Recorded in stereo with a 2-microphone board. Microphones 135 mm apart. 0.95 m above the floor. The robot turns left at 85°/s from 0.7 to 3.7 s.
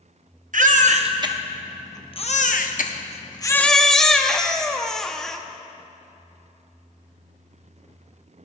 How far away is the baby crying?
About 0.7 m.